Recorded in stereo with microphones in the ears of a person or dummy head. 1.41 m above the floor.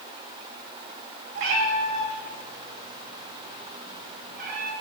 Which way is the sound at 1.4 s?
55° right (ahead or behind).